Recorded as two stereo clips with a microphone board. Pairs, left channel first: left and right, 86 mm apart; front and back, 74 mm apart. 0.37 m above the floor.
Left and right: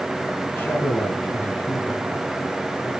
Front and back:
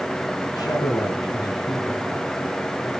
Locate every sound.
0.6 s a man speaking: 25° left, 3.5 m